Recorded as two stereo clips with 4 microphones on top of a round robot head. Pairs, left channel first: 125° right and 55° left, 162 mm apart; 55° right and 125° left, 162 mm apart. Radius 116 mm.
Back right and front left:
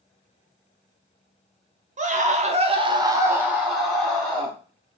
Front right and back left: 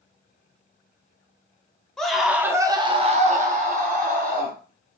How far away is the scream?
About 1.0 m.